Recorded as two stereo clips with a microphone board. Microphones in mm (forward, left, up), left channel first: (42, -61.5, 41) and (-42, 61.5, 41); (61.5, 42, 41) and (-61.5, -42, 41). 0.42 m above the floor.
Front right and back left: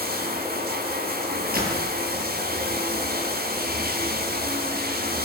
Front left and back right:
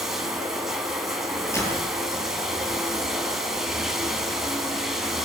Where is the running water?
125° left, 3 m.